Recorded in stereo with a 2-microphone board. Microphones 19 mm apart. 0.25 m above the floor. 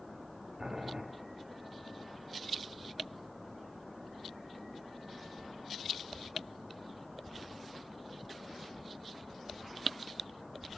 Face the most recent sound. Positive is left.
turn(degrees=-55)  # may be behind; listen again after turning